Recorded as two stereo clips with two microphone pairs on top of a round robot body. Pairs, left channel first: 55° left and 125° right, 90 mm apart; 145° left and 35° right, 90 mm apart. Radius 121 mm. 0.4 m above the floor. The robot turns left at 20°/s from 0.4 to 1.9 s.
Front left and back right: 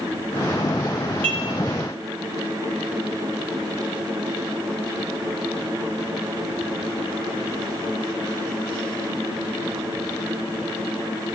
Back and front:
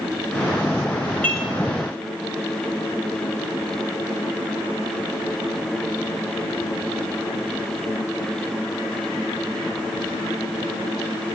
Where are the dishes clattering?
140° right, 4 m; by 1.5 s 145° right, 4 m.